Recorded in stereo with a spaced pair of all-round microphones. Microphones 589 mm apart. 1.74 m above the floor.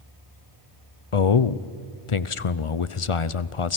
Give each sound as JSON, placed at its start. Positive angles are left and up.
{"t": 1.1, "sound": "a man speaking", "side_deg": 60, "distance_m": 0.8}